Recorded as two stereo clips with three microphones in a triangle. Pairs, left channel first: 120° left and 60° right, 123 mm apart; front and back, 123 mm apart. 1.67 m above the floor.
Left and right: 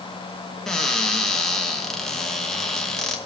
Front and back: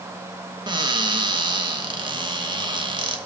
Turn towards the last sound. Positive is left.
turn(degrees=-155)